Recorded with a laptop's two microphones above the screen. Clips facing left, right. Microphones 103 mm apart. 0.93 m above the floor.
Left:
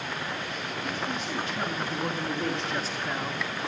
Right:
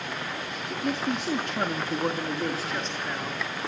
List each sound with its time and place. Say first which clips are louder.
0.7 s a man speaking: right 6 dB; 75° right (ahead or behind), 2.5 m; by 3.5 s 15° left (ahead or behind), 3 m